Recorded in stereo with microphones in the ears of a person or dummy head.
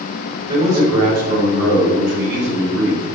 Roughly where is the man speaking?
Right.